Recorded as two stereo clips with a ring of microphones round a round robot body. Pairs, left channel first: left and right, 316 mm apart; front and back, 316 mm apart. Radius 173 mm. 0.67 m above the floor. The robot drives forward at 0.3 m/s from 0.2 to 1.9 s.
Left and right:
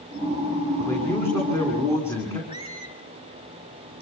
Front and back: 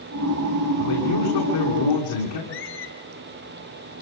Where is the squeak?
20° left, 4 m.